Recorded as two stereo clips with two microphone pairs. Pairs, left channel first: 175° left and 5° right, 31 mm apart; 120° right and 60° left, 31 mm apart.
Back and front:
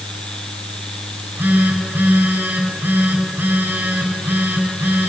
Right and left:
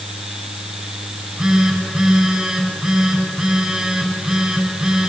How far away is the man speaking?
No man speaking in this recording.